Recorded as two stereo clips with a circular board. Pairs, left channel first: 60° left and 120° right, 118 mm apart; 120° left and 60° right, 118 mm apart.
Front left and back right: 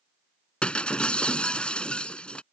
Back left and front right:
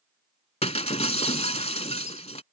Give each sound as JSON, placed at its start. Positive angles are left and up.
{"t": 0.6, "sound": "breaking glass", "azimuth_deg": 140}